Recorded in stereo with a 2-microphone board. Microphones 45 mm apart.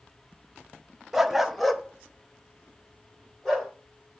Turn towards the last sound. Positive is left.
turn(degrees=10)  # may be behind; listen again after turning